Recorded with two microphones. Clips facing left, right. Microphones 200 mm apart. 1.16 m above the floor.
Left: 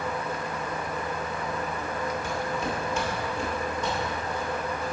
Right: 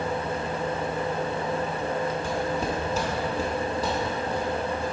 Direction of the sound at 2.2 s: 30° right (ahead or behind).